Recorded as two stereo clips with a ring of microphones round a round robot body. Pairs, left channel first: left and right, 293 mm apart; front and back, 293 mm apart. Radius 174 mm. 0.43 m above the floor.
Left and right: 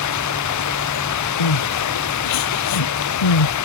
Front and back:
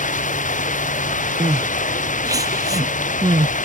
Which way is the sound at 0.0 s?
65° left.